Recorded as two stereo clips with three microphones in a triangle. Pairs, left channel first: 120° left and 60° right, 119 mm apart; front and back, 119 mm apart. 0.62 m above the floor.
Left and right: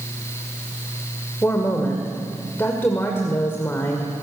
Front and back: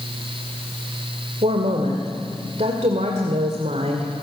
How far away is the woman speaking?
About 2 m.